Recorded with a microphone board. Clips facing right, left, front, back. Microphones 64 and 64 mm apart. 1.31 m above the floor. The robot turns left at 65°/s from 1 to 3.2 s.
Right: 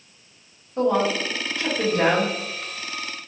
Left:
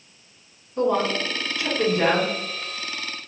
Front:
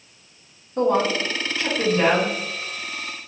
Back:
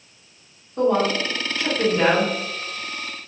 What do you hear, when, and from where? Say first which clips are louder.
0.8 s a woman speaking: right 1 dB, even; 30° right, 1.8 m; by 2.3 s 115° right, 1.8 m